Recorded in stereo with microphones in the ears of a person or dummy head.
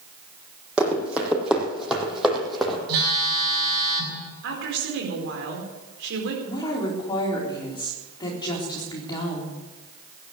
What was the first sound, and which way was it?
Running footsteps, centre (ahead or behind).